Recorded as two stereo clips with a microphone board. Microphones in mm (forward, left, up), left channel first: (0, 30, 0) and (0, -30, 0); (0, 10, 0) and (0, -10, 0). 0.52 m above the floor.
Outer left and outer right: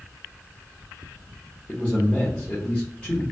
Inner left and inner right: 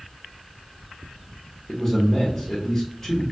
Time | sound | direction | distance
1.7 | a man speaking | 25° left (ahead or behind) | 1.0 m